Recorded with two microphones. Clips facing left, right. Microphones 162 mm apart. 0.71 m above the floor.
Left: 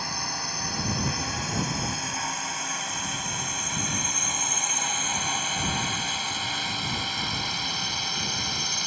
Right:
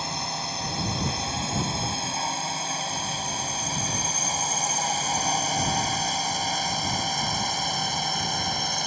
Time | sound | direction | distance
0.0 | a drone | 25° right (ahead or behind) | ?